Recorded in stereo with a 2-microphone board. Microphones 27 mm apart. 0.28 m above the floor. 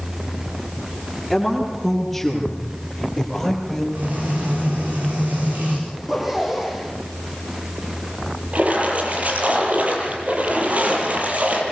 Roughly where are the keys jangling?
I don't hear keys jangling.